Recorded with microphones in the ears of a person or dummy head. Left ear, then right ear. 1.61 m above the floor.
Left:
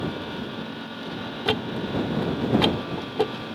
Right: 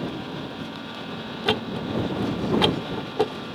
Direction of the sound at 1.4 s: Centre (ahead or behind).